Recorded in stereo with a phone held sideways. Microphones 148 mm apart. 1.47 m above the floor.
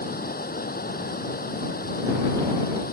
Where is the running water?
85° left.